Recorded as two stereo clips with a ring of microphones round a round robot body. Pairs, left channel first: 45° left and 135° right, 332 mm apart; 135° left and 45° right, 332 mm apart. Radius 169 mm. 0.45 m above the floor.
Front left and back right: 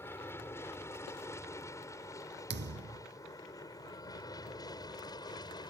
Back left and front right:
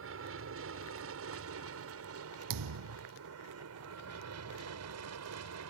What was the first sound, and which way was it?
An aircraft, 35° right.